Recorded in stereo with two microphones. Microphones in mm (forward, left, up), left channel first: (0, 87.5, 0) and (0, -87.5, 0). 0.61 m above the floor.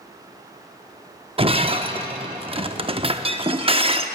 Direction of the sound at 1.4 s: 35° right (ahead or behind).